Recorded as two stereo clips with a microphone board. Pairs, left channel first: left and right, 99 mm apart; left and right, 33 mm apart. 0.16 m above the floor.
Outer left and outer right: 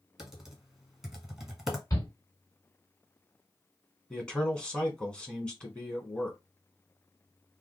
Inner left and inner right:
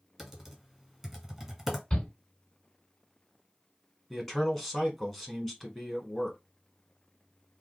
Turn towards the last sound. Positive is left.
turn(degrees=10)  # may be behind; listen again after turning